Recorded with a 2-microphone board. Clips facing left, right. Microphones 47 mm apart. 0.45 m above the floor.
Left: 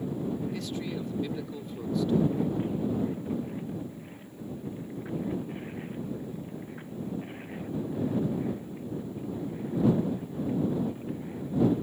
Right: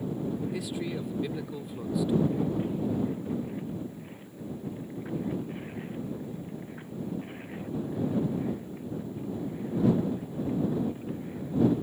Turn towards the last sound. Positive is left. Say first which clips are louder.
# right 1 dB
turn(degrees=-10)  # may be behind; listen again after turning